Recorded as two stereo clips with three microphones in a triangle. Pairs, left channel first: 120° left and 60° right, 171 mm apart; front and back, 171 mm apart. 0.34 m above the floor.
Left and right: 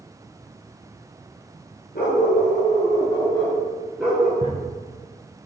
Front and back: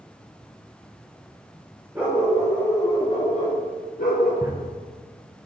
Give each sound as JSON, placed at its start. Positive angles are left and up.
{"t": 1.9, "sound": "a dog barking", "azimuth_deg": 105, "distance_m": 2.5}
{"t": 4.4, "sound": "a drawer", "azimuth_deg": -110, "distance_m": 1.5}